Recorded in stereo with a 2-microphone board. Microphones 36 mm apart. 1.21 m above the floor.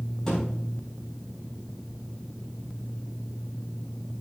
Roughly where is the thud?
Centre.